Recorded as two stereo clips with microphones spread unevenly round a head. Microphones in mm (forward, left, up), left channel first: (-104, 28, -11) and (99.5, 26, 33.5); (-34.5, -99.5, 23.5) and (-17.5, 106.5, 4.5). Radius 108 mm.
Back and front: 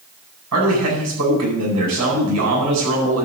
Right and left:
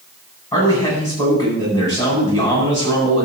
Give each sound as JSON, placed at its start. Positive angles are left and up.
{"t": 0.5, "sound": "a man speaking", "azimuth_deg": -20, "distance_m": 9.0}